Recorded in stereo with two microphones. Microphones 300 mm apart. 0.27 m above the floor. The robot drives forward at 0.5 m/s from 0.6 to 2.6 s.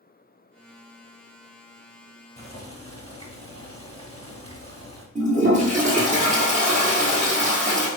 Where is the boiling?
20° left (ahead or behind), 0.7 m.